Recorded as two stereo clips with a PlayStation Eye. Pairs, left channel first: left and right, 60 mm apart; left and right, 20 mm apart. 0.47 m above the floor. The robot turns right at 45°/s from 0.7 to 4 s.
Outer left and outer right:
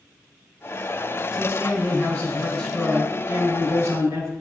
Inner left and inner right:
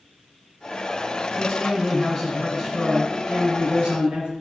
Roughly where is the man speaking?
Behind left.